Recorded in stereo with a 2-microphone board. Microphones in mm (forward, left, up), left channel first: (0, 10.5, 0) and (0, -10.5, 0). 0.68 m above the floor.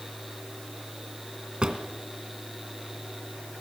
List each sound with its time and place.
1.6 s a drawer: 45° right (ahead or behind), 2 m